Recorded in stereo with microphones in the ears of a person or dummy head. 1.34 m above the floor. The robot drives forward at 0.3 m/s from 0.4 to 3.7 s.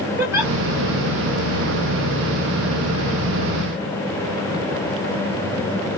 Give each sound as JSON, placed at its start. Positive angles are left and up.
{"t": 0.2, "sound": "a giggle", "side_deg": -10, "distance_m": 1.1}